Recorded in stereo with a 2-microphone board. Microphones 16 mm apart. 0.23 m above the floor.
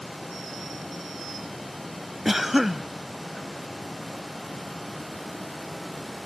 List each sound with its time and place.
2.2 s a cough: 15° right (ahead or behind)